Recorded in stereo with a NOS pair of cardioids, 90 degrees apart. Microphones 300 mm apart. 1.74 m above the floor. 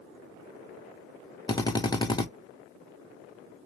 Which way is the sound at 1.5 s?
15° left.